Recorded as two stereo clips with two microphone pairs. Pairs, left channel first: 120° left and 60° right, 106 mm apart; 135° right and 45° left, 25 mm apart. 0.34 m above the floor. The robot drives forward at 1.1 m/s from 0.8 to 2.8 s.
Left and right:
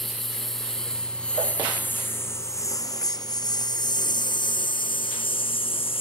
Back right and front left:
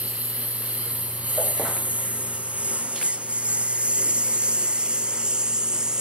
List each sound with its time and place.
0.0 s a lawn mower: 35° left; by 6.0 s 100° left